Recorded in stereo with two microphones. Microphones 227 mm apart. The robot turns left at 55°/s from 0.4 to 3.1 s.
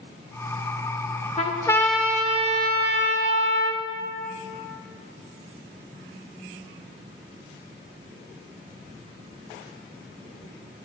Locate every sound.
1.4 s a trumpet: 30° left, 0.6 m; by 3.8 s 65° right, 0.6 m